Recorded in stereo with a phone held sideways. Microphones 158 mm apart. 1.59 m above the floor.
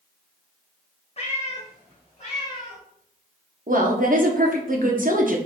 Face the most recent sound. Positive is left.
turn(degrees=-60)  # may be behind; listen again after turning